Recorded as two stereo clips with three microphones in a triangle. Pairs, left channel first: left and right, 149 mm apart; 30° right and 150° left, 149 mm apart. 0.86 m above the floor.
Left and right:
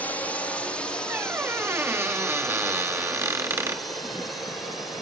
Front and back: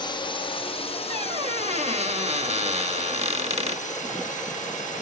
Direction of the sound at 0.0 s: 15° left.